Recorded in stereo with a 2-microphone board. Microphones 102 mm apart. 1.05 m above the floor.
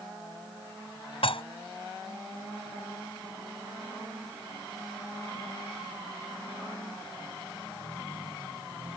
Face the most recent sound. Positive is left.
turn(degrees=70)  # may be behind; listen again after turning